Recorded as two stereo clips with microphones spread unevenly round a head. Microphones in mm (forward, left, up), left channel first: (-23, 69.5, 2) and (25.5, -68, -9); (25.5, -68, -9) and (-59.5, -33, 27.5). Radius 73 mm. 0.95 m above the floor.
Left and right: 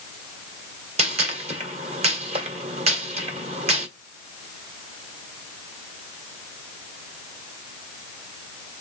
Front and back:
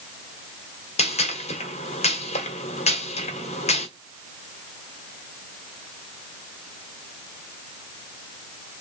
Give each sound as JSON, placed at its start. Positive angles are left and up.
{"t": 1.0, "sound": "a gunshot", "azimuth_deg": -20, "distance_m": 1.7}